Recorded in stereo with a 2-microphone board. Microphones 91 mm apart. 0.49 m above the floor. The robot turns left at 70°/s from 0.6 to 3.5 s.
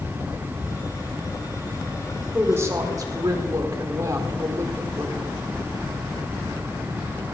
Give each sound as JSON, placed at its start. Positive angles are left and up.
{"t": 2.3, "sound": "a woman speaking", "azimuth_deg": -30, "distance_m": 1.6}